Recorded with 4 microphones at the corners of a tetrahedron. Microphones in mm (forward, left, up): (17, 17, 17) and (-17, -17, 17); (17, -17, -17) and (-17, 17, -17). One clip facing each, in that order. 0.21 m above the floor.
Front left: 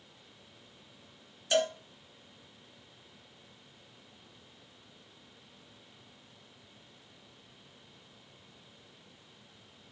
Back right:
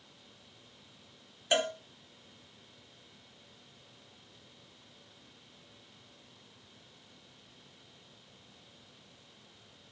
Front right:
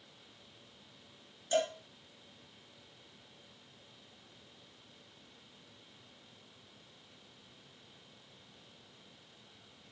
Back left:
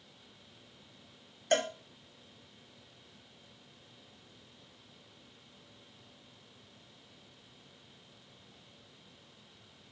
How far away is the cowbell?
About 1.3 m.